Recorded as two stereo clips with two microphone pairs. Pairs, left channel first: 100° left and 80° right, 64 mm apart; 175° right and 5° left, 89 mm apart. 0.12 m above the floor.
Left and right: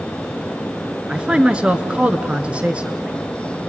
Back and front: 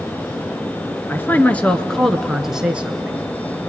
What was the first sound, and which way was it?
A man speaking, 140° right.